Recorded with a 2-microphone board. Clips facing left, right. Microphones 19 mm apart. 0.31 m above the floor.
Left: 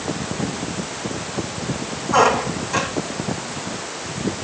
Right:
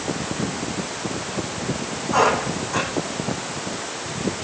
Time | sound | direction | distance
2.1 | a squeak | 20° left (ahead or behind) | 6.5 m